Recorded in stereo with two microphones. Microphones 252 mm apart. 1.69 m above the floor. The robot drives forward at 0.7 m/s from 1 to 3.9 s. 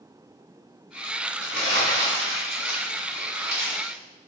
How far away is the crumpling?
About 3 m.